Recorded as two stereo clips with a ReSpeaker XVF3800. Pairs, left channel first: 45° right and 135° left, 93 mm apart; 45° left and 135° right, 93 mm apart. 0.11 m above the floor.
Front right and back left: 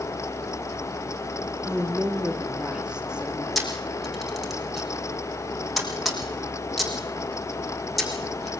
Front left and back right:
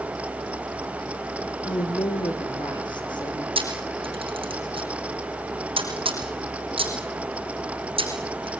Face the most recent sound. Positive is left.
turn(degrees=-135)